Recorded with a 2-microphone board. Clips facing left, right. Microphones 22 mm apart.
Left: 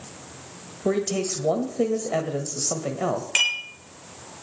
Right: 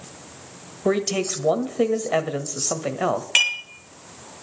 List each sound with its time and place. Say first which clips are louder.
0.8 s a man speaking: right 2 dB; 30° right (ahead or behind), 1.1 m
3.4 s dishes clattering: right 2 dB; 20° right (ahead or behind), 4 m